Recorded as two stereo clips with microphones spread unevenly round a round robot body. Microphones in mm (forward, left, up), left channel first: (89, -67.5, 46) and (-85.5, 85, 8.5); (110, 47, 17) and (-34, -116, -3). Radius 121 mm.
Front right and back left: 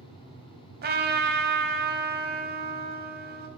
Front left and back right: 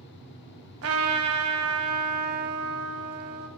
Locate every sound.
0.8 s a trumpet: 170° right, 1.4 m